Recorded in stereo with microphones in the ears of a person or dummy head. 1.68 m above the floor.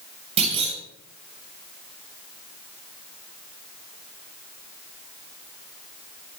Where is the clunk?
35° right (ahead or behind), 6.5 m.